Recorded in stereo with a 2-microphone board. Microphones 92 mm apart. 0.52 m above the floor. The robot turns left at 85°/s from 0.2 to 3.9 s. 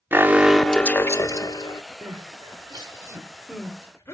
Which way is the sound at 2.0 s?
45° right (ahead or behind).